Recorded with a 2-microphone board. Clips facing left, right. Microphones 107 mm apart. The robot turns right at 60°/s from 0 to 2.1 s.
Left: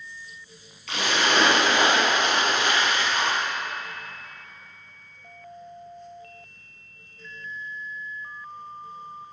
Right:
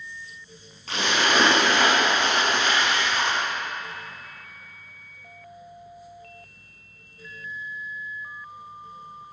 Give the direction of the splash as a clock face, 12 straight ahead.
1 o'clock.